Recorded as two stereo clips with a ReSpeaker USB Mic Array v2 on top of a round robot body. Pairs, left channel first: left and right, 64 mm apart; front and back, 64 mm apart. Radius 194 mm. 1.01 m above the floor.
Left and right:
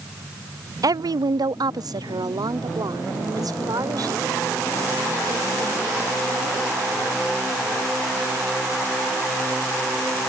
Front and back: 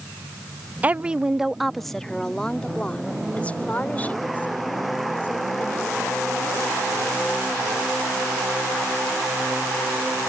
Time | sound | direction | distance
0.8 | a woman speaking | 110° right | ?